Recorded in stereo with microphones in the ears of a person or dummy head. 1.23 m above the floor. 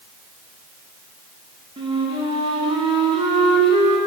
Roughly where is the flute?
Right.